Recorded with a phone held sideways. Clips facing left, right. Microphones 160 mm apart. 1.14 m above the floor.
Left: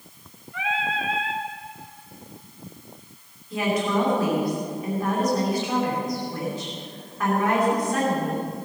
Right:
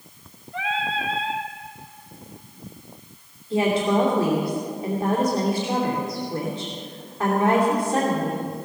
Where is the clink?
I don't hear a clink.